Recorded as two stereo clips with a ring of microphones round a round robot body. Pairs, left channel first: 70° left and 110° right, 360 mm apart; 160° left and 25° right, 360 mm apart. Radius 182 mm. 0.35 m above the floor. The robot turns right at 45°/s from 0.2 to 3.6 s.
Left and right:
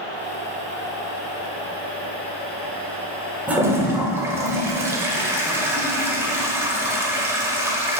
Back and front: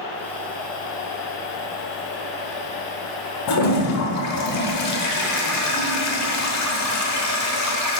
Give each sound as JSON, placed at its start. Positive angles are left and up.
{"t": 3.5, "sound": "a toilet flushing", "azimuth_deg": 160, "distance_m": 0.9}